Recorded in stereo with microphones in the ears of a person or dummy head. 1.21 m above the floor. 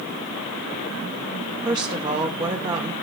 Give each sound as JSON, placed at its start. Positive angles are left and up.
{"t": 1.6, "sound": "a woman speaking", "side_deg": -25, "distance_m": 0.7}